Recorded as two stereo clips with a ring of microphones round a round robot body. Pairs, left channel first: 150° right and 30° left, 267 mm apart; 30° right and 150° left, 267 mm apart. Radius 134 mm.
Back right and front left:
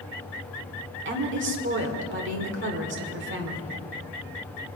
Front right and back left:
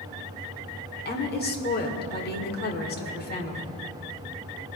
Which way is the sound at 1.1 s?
10° left.